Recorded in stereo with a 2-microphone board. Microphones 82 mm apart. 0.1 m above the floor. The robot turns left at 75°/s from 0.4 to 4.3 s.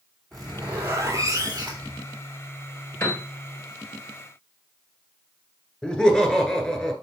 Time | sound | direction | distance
0.3 | a zipper | 5° left | 2.5 m
3.0 | a piano | 25° left (ahead or behind) | 2 m
5.8 | laughter | 10° left (ahead or behind) | 1.3 m